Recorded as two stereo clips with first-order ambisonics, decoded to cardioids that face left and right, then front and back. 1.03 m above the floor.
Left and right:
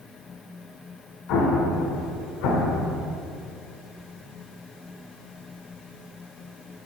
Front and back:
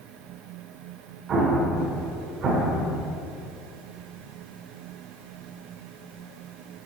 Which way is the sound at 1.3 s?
120° left.